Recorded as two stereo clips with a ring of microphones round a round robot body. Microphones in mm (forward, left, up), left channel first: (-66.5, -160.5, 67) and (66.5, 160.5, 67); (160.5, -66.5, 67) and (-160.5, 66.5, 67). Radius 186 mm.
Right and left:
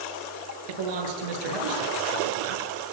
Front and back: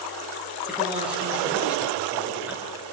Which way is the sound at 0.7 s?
70° left.